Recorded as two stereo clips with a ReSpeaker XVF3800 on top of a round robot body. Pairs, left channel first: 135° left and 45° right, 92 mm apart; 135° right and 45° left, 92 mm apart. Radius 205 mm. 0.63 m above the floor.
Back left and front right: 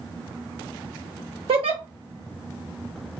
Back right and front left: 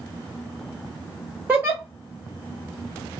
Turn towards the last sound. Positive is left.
turn(degrees=-25)